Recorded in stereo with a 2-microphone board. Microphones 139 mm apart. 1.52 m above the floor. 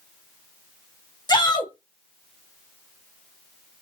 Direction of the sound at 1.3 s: 30° left (ahead or behind).